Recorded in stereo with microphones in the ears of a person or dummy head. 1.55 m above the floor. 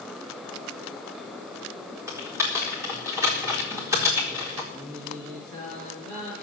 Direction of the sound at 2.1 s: 10° right (ahead or behind).